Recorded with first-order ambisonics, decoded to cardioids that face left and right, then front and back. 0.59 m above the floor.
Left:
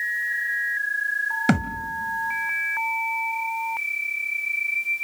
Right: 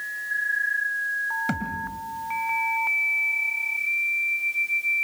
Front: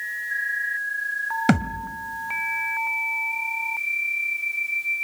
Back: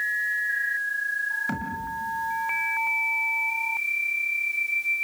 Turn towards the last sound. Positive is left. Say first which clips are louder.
# left 4 dB, front 6 dB
turn(degrees=35)